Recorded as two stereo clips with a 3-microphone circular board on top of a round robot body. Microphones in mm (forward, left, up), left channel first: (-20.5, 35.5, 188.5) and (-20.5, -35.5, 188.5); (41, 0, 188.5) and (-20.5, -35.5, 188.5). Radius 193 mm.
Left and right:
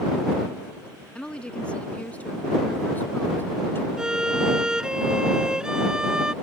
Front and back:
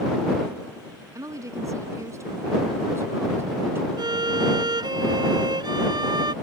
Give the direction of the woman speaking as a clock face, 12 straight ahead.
6 o'clock.